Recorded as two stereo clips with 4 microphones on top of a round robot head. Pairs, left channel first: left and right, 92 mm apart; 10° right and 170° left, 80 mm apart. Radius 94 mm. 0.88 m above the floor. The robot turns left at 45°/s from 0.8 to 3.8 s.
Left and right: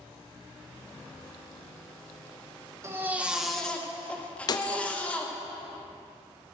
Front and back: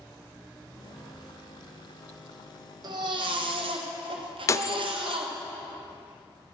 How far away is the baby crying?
About 1.3 m.